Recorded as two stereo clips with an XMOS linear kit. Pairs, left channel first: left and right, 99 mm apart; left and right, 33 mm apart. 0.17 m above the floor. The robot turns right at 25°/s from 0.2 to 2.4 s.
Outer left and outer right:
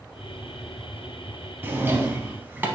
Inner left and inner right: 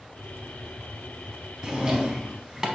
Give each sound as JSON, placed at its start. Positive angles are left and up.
{"t": 1.6, "sound": "a drawer", "side_deg": -20, "distance_m": 0.6}